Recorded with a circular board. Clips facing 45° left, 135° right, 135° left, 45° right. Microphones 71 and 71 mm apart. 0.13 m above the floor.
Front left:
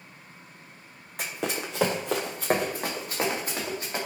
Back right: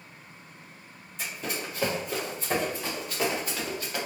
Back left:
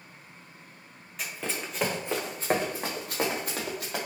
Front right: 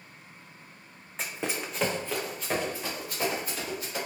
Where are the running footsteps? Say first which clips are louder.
Front left 3 dB, front right 2 dB; 15° left, 0.7 m; by 4.0 s 110° left, 1.5 m.